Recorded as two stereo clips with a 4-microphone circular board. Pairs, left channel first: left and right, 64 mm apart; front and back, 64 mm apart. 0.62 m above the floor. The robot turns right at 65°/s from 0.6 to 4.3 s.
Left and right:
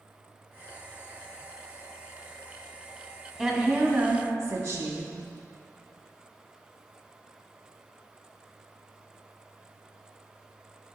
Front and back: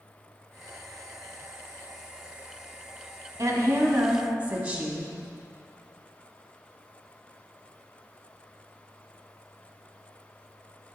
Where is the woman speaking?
170° left, 1.0 m; by 5.1 s 130° right, 1.0 m.